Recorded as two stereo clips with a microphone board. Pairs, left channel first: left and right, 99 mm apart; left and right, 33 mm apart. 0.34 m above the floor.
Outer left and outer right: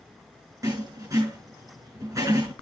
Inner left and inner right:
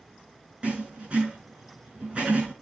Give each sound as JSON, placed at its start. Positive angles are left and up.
{"t": 0.6, "sound": "writing", "side_deg": -35, "distance_m": 5.0}